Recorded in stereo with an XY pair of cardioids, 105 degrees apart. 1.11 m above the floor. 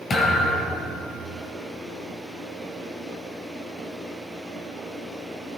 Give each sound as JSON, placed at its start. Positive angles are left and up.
{"t": 0.1, "sound": "a thud", "azimuth_deg": 40, "distance_m": 5.0}